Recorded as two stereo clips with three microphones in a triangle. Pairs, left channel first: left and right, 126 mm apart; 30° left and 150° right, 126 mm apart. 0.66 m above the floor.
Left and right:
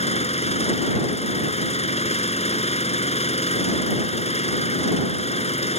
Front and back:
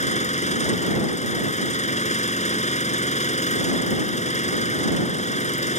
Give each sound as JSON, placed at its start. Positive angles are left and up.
{"t": 0.0, "sound": "an engine running", "azimuth_deg": 55}